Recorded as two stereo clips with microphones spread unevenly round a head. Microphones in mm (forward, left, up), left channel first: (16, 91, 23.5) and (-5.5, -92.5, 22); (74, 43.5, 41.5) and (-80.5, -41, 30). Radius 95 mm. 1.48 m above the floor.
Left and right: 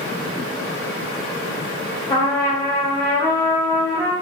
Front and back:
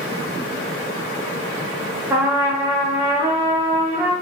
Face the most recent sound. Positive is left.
turn(degrees=140)